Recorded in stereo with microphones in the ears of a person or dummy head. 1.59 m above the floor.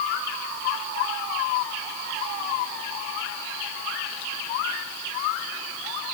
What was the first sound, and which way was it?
Only background noise.